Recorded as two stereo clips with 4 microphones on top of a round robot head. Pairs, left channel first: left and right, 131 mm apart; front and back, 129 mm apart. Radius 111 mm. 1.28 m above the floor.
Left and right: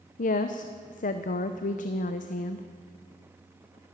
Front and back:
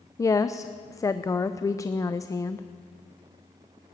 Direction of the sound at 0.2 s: 65° left.